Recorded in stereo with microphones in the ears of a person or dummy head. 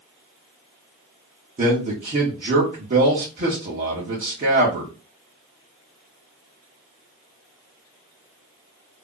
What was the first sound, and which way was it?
A man speaking, 40° right (ahead or behind).